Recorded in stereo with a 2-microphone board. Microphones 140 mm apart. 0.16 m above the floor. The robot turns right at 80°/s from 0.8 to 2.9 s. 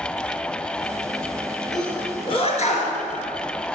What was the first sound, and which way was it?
A sneeze, centre (ahead or behind).